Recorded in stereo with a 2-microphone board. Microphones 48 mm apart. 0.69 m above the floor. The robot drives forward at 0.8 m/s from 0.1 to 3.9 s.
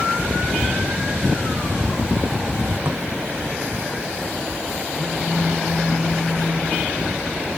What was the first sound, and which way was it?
A drawer, 50° right (ahead or behind).